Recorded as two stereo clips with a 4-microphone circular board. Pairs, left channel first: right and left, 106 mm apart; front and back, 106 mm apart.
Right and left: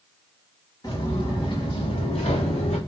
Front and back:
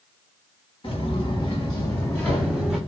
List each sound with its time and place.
0.8 s footsteps: 35° right, 2.5 m; by 2.8 s 95° right, 1.6 m